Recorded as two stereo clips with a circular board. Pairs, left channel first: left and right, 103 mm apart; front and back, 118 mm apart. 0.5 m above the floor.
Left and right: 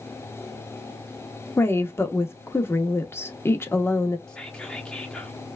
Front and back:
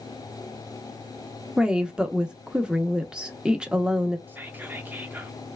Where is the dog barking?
I don't hear a dog barking.